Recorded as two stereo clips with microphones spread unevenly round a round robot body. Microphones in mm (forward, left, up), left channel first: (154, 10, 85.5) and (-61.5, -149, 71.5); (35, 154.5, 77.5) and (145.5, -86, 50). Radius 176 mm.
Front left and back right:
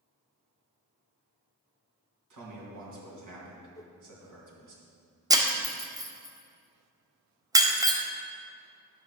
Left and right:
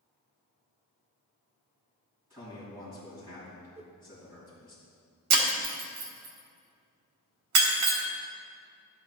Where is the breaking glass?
70° right, 1.3 m.